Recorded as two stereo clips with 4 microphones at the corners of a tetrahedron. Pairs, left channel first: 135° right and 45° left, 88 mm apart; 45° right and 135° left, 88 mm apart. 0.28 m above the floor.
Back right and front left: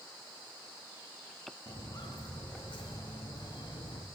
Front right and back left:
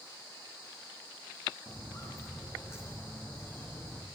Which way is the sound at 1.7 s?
100° right.